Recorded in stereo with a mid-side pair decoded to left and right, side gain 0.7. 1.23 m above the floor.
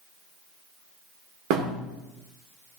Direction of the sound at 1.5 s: 70° right.